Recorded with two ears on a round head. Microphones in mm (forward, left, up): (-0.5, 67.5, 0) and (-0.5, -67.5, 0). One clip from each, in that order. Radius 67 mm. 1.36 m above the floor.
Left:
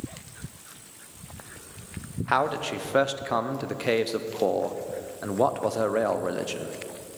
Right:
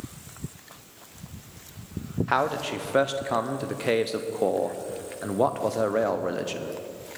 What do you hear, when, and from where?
2.3 s a man speaking: 10° left (ahead or behind), 0.5 m